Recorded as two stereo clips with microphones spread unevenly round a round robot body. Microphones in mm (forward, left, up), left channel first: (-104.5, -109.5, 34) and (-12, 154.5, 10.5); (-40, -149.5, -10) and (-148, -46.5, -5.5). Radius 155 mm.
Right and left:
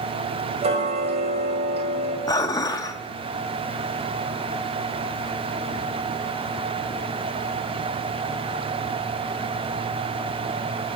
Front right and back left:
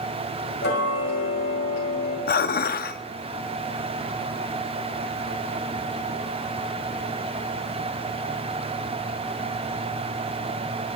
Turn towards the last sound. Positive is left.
turn(degrees=-30)